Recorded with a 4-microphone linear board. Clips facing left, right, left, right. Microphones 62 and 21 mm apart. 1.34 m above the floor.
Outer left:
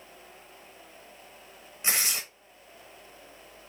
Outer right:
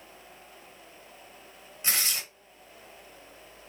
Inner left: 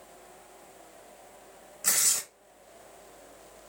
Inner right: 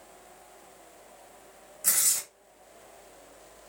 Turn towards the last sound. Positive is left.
turn(degrees=20)  # may be behind; listen again after turning